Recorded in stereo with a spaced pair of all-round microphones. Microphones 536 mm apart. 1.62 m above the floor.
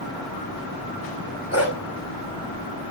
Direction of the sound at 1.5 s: 25° left (ahead or behind).